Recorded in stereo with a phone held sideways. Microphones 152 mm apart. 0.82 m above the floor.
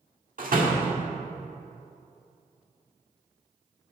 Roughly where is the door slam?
Right.